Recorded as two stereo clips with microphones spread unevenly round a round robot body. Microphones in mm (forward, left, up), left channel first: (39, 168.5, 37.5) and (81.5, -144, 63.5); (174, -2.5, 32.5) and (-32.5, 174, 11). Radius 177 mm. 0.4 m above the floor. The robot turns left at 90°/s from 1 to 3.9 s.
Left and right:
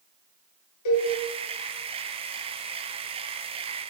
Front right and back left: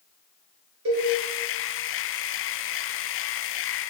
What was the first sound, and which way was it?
A cowbell, 115° left.